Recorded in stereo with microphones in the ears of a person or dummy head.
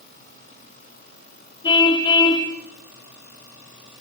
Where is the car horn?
25° left (ahead or behind), 2 m.